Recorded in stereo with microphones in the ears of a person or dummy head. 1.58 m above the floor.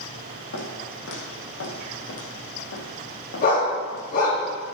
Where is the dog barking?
45° left (ahead or behind), 5.5 m.